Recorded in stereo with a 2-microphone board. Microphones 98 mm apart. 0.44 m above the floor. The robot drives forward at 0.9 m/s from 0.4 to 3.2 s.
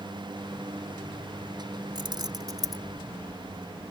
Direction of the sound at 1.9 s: 55° right (ahead or behind).